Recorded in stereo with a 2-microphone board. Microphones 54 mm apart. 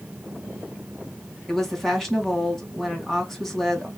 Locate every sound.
1.5 s a woman speaking: 5° left (ahead or behind), 2 m